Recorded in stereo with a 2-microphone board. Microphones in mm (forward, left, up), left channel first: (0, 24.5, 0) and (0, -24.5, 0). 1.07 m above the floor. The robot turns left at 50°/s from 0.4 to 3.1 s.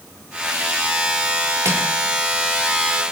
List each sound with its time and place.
1.6 s crushing: 65° right (ahead or behind), 2 m; by 1.9 s 75° right (ahead or behind), 2 m